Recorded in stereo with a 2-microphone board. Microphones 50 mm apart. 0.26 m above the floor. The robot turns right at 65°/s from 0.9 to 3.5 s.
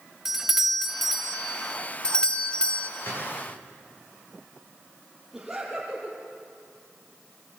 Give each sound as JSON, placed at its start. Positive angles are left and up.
{"t": 0.2, "sound": "a doorbell", "side_deg": -10, "distance_m": 1.3}
{"t": 3.0, "sound": "a gunshot", "side_deg": 55, "distance_m": 8.5}
{"t": 5.3, "sound": "laughter", "side_deg": -5, "distance_m": 6.0}